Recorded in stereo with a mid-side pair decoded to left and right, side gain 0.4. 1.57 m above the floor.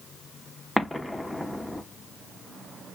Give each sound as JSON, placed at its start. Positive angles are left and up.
{"t": 0.8, "sound": "an explosion", "azimuth_deg": 5, "distance_m": 0.9}